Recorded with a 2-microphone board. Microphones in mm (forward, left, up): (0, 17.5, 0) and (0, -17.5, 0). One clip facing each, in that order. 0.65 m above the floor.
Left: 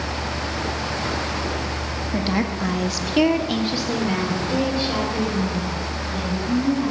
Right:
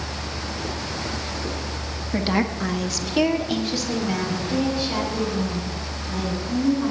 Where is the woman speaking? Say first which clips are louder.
Right 1 dB; 15° right (ahead or behind), 1.0 m; by 6.9 s 20° left (ahead or behind), 5.5 m.